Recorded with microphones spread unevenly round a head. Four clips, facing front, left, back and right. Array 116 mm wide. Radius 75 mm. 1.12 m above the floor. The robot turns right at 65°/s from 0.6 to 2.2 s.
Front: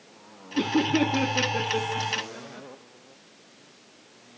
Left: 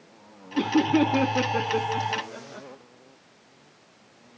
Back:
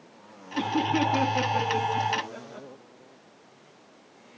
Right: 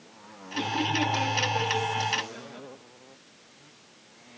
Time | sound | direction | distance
0.6 | laughter | 40° left | 2.5 m